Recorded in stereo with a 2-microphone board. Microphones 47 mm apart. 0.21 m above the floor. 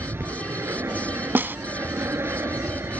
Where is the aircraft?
65° right (ahead or behind).